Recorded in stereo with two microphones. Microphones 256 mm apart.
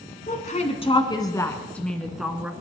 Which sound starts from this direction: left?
A woman speaking, at 0.3 s.